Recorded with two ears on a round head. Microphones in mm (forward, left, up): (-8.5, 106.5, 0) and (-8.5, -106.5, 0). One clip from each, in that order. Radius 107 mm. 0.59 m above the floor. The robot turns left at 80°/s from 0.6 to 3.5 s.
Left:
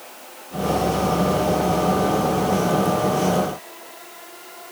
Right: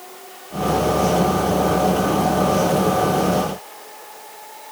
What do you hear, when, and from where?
Only background noise.